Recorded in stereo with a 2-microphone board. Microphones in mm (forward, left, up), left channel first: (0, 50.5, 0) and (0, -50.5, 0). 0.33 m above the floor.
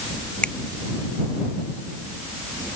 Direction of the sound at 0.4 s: 10° left (ahead or behind).